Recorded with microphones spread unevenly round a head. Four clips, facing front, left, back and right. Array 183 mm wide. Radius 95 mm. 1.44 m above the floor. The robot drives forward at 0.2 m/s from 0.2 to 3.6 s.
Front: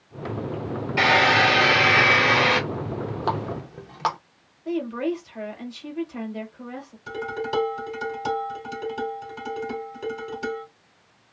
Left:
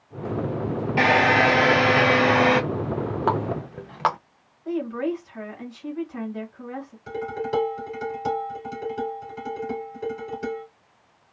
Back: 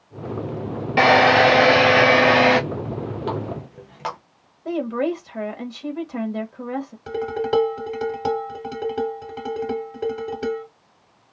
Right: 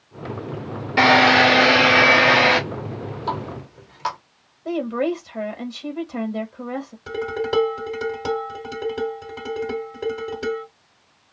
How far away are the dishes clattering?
About 2.5 m.